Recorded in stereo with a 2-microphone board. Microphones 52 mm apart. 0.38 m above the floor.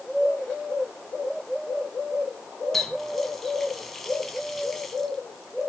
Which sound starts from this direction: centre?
A running tap, at 2.7 s.